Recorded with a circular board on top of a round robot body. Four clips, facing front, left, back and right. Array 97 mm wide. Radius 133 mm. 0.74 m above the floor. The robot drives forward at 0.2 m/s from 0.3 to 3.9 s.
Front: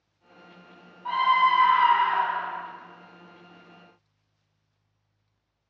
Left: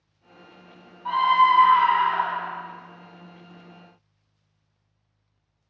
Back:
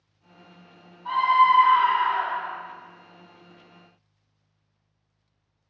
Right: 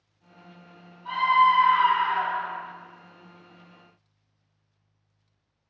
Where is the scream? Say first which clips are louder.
Left 2 dB, back 3 dB; 65° left, 0.9 m; by 2.6 s 90° left, 0.9 m.